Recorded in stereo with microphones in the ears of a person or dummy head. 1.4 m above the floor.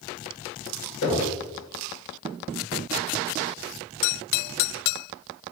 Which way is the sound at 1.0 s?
80° left.